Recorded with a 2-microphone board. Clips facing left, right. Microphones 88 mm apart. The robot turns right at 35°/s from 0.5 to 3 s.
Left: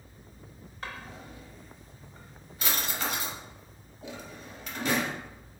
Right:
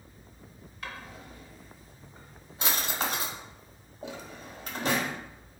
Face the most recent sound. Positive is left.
turn(degrees=-40)  # may be behind; listen again after turning